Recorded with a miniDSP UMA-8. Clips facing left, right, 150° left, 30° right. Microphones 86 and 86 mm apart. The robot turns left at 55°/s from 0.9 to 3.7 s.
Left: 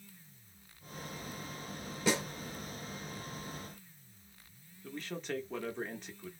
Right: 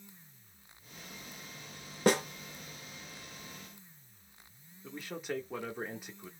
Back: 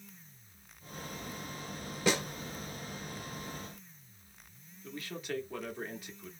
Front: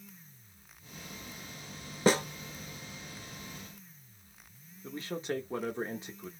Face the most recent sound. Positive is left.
turn(degrees=-20)